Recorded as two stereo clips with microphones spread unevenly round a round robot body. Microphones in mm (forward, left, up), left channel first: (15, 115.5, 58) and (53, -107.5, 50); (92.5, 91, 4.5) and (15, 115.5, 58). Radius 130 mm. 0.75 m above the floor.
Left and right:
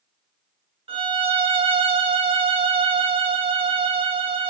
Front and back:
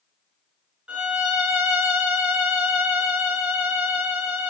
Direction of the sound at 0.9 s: 45° right.